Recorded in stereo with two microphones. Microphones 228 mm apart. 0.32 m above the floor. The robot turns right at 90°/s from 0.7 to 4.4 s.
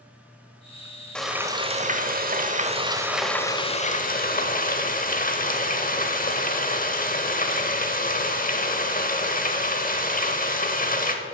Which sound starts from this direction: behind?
Frying, at 1.1 s.